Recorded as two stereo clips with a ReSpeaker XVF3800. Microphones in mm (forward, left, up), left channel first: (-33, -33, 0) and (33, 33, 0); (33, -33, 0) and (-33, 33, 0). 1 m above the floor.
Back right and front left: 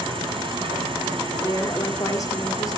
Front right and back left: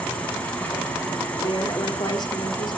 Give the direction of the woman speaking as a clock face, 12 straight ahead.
3 o'clock.